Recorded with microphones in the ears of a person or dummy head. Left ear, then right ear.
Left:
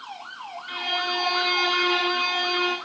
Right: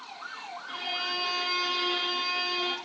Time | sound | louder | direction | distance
0.7 | a violin | left 6 dB | 10° left (ahead or behind) | 2.5 m